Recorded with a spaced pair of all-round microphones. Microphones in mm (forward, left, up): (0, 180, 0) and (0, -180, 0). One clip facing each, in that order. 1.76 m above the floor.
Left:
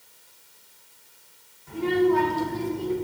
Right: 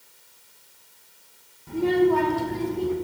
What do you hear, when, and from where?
1.7 s a child speaking: 50° right (ahead or behind), 2.5 m; by 2.9 s 70° right (ahead or behind), 3 m